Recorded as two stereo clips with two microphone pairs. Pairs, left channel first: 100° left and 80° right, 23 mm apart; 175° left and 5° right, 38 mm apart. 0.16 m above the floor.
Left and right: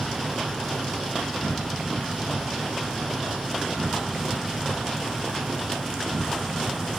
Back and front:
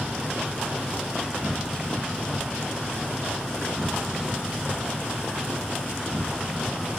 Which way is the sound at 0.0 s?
75° right.